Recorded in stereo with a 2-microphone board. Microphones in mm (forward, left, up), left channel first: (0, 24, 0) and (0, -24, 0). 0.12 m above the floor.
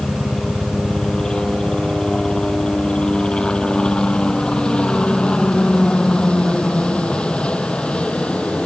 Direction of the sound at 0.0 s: 15° left (ahead or behind).